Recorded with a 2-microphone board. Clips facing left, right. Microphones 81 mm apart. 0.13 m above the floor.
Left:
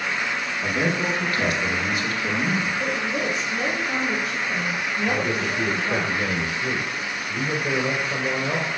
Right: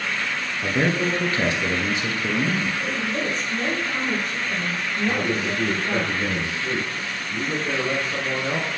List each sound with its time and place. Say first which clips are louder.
0.6 s a man speaking: right 2 dB; 25° right (ahead or behind), 1.6 m
2.8 s a woman speaking: left 1 dB; 5° left (ahead or behind), 3.5 m
5.1 s a man speaking: right 1 dB; 45° left (ahead or behind), 1.6 m